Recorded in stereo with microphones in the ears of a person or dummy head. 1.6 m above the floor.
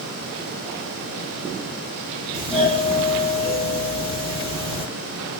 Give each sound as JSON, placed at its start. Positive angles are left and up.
{"t": 2.3, "sound": "a doorbell", "side_deg": -20, "distance_m": 0.9}